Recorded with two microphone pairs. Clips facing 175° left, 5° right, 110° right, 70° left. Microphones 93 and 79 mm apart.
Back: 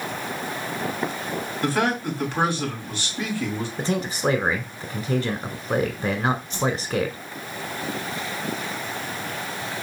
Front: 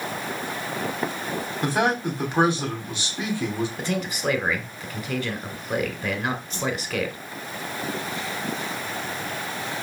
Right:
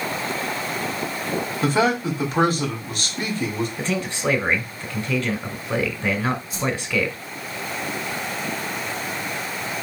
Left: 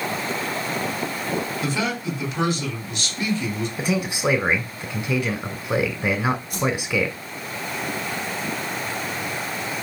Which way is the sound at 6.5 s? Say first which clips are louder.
Back 3 dB, left 2 dB; 45° left.